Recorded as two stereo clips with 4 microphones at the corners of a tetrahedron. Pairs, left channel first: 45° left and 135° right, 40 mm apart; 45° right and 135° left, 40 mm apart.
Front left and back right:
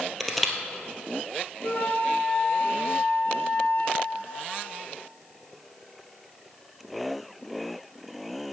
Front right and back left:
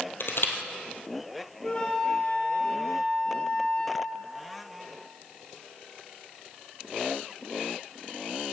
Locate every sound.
0.2 s crushing: 45° right, 1.8 m
1.6 s a flute: 15° left, 2.5 m